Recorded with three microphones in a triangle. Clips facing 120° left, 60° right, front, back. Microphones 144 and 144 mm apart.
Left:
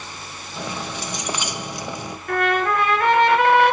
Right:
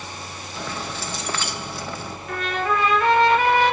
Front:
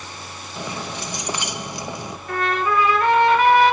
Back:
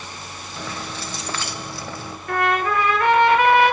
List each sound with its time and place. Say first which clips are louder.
0.6 s keys jangling: left 2 dB, front 2 dB; 60° left, 0.7 m
2.3 s a trumpet: left 4 dB, back 1 dB; 150° left, 3.5 m